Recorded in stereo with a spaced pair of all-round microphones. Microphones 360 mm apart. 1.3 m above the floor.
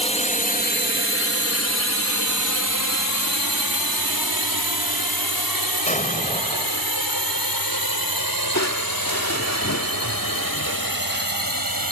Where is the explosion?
20° left (ahead or behind).